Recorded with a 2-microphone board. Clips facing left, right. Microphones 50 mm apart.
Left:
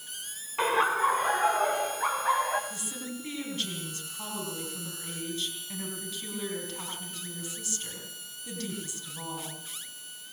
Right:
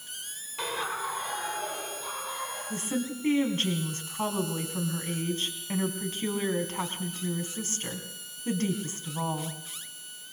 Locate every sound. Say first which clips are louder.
0.6 s laughter: left 8 dB; 35° left (ahead or behind), 1.3 m; by 2.6 s 65° left (ahead or behind), 2.5 m
2.7 s a woman speaking: right 7 dB; 45° right (ahead or behind), 4 m